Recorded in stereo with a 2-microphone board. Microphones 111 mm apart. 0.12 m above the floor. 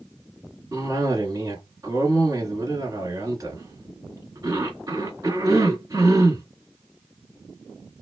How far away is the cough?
About 1.2 m.